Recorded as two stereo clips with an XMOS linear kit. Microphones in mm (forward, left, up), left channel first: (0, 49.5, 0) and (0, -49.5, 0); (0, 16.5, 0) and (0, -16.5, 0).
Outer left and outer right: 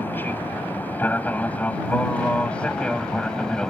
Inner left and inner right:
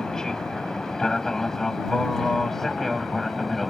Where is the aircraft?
20° left (ahead or behind); by 3.7 s 5° left (ahead or behind).